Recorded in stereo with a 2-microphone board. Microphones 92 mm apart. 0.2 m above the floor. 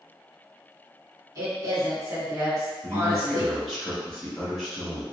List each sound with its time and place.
1.4 s a woman speaking: 40° right (ahead or behind), 1.8 m
2.8 s a man speaking: 5° left (ahead or behind), 1.0 m